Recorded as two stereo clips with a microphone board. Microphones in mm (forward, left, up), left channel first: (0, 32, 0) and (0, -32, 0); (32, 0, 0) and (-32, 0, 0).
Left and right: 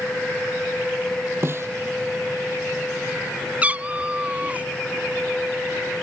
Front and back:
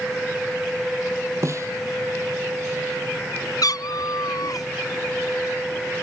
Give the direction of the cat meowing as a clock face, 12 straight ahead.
1 o'clock.